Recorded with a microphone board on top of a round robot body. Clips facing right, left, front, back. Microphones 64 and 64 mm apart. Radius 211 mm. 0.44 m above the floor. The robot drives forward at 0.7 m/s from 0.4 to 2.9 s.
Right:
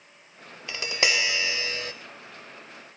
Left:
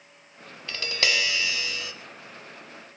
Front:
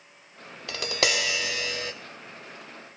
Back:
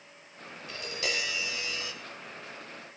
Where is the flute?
No flute in this recording.